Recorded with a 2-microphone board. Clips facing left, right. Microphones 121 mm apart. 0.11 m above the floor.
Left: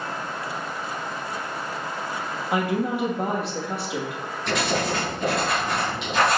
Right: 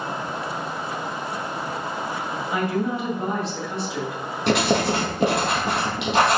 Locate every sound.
2.5 s a woman speaking: 65° left (ahead or behind), 3 m
4.5 s writing: 70° right (ahead or behind), 3.5 m